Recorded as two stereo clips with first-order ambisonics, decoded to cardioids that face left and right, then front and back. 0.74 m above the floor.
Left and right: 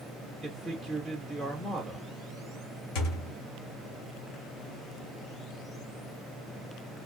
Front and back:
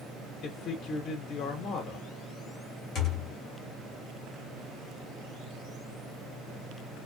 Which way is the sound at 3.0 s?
60° left.